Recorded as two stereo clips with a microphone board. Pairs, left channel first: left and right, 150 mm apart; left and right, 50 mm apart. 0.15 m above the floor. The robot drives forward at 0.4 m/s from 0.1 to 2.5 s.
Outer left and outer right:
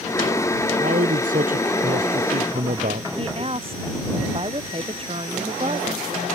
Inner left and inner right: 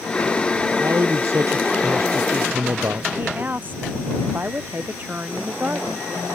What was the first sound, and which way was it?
A man speaking, 65° right (ahead or behind).